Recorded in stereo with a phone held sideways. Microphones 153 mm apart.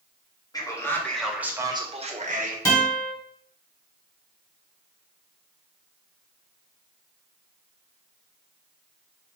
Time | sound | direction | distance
0.5 | a man speaking | 25° left (ahead or behind) | 1.1 m
2.6 | a guitar | 15° left (ahead or behind) | 1.7 m